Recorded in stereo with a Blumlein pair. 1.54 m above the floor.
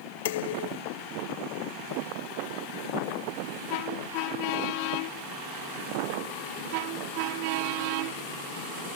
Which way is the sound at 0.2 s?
55° left.